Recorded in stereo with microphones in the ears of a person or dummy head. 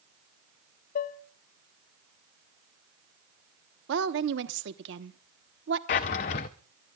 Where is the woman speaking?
65° right (ahead or behind), 1.1 m.